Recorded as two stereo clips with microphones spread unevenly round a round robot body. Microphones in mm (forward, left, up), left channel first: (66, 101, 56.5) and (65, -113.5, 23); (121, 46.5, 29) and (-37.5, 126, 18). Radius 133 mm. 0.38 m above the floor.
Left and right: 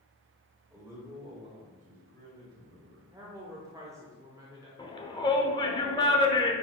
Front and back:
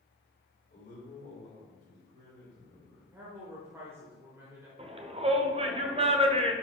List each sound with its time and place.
0.7 s a man speaking: 15° right, 2 m; by 3.0 s 110° right, 2.5 m
3.1 s a woman speaking: 140° right, 1.0 m
4.8 s a shout: 160° left, 0.9 m